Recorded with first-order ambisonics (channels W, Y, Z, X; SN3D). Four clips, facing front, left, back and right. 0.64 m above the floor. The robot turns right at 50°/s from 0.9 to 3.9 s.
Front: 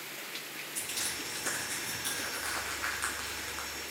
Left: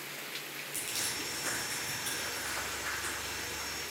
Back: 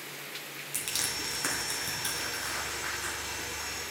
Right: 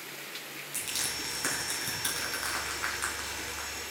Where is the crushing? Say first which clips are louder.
Right 3 dB, back 4 dB; 170° right, 3 m; by 3.7 s 30° right, 3 m.